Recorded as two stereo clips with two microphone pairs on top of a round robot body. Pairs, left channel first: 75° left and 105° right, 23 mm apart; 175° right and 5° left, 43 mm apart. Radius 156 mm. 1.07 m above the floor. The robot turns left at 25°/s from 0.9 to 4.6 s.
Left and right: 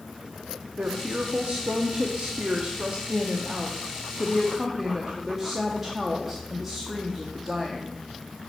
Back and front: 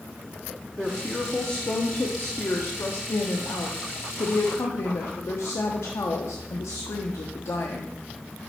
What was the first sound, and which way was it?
A woman speaking, 95° right.